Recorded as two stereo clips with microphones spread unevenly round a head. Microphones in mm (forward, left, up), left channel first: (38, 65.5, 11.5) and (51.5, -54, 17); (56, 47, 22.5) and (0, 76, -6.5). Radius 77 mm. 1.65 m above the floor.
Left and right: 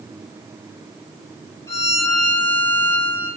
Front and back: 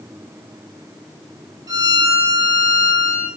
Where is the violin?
150° left, 1.5 m.